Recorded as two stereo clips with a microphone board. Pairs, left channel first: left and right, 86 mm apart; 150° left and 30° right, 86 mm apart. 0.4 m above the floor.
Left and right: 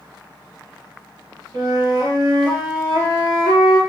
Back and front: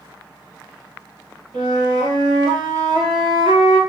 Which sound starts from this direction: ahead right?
A flute, at 1.5 s.